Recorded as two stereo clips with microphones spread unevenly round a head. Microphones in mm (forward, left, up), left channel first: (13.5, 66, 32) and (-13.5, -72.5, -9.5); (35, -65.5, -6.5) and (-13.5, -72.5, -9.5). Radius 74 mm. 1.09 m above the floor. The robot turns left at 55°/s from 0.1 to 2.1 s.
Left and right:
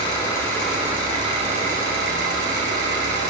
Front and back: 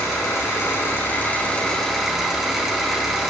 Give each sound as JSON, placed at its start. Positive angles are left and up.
{"t": 0.0, "sound": "an engine running", "azimuth_deg": 25, "distance_m": 5.0}